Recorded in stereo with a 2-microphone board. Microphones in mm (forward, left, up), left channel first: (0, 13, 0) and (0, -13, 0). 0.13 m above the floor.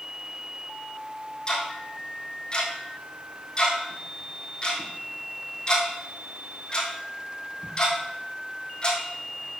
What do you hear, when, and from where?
1.5 s ticking: 35° left (ahead or behind), 3 m